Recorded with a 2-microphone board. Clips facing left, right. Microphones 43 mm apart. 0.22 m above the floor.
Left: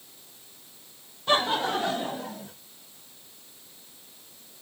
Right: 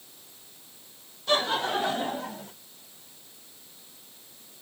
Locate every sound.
1.3 s laughter: 20° left (ahead or behind), 1.4 m; by 2.5 s 45° right (ahead or behind), 2 m